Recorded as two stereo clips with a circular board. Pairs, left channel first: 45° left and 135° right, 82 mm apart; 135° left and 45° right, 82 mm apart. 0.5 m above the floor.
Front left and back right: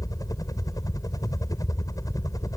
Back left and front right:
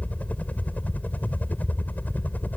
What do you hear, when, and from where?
0.0 s a helicopter: 70° left